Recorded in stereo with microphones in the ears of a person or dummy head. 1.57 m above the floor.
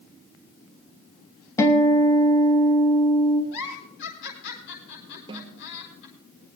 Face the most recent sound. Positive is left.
turn(degrees=-25)  # may be behind; listen again after turning